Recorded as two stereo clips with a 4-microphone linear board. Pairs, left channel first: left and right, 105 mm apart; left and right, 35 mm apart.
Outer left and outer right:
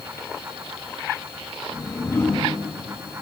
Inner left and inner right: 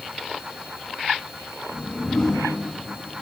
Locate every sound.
1.7 s a whoosh: 25° left (ahead or behind), 7 m